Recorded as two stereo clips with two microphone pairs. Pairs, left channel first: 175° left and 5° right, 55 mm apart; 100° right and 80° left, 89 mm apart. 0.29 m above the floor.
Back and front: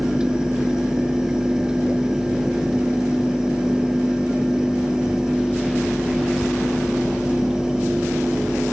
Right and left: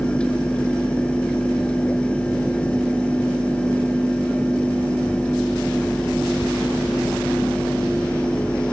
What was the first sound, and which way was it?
Only background noise.